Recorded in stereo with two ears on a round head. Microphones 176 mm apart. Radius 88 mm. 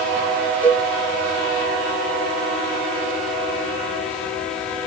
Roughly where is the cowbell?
Centre.